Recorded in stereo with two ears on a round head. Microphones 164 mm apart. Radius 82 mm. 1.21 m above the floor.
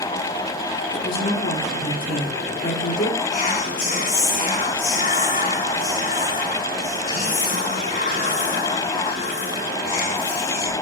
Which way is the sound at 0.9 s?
50° left (ahead or behind).